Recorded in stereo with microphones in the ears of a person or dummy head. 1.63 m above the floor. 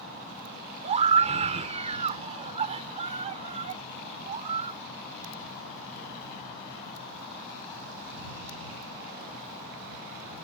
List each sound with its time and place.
0.8 s a scream: 40° right (ahead or behind)